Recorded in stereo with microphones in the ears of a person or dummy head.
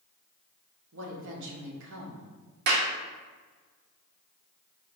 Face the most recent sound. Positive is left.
turn(degrees=-60)  # may be behind; listen again after turning